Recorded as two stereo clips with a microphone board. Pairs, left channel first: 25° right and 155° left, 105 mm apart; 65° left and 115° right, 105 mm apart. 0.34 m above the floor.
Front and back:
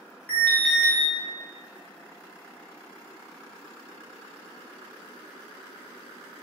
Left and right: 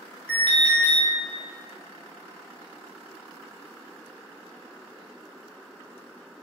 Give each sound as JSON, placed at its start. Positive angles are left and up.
{"t": 0.3, "sound": "an alarm", "azimuth_deg": 15, "distance_m": 1.0}